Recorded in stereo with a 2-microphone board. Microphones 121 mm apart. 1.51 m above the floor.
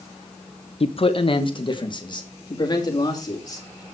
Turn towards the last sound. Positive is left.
turn(degrees=30)  # may be behind; listen again after turning